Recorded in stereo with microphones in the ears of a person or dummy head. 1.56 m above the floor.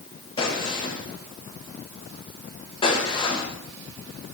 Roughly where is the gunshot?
Left.